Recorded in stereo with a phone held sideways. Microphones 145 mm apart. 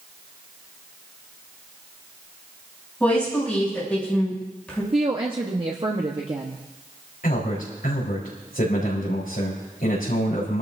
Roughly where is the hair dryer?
I don't hear a hair dryer.